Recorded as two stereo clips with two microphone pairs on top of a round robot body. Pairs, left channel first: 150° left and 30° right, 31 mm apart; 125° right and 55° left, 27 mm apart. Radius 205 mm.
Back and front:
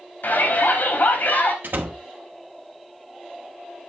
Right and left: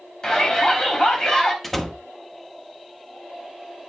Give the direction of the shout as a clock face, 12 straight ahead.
6 o'clock.